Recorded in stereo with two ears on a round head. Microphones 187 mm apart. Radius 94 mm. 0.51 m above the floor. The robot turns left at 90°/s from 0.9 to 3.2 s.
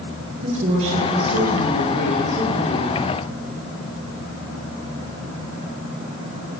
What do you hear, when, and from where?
0.4 s a woman speaking: 35° right, 9.5 m; by 3.0 s 140° left, 9.5 m